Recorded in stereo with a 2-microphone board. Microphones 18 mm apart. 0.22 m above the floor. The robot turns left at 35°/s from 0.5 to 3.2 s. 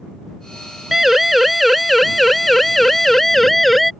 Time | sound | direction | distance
0.9 | a siren | 15° right (ahead or behind) | ?